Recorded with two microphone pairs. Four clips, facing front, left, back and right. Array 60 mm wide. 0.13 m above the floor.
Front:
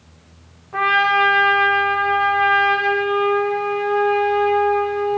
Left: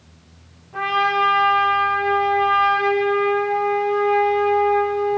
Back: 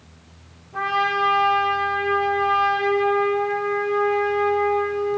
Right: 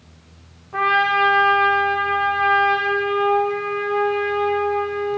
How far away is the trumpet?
About 9 m.